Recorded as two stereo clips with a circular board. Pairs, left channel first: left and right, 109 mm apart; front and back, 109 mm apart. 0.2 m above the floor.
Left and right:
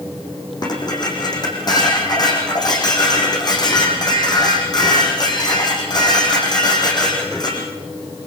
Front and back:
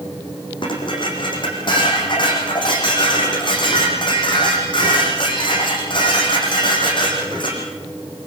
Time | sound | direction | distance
0.6 | dishes clattering | 40° left | 8.5 m